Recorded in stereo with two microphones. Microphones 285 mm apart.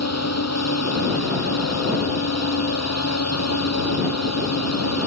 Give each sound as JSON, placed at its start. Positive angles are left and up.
{"t": 0.0, "sound": "a drone", "side_deg": 65}